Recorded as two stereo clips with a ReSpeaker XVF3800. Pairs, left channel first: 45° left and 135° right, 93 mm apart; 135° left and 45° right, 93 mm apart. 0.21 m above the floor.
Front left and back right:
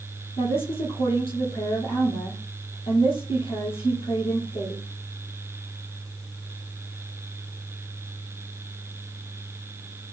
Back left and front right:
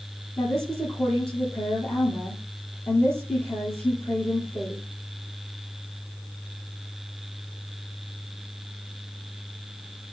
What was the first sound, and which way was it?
A woman speaking, 60° left.